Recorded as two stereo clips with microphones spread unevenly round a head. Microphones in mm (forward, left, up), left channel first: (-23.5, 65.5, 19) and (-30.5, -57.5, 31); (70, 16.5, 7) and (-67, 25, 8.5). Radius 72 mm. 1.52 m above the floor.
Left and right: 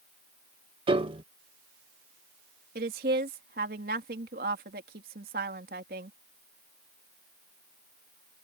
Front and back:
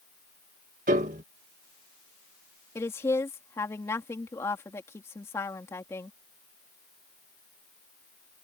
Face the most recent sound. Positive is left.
turn(degrees=-80)